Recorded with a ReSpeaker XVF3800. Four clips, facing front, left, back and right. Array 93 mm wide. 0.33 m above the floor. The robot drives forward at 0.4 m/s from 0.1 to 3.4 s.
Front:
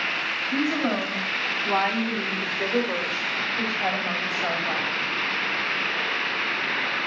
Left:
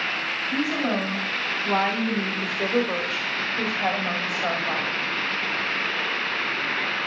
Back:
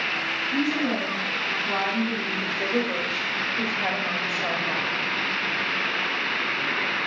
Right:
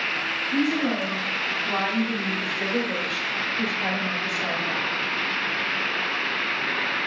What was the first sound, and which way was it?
A woman speaking, 35° left.